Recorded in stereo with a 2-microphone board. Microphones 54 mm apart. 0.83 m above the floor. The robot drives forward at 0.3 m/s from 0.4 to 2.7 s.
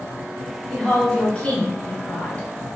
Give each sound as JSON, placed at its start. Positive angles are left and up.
{"t": 0.7, "sound": "a woman speaking", "side_deg": 20, "distance_m": 1.1}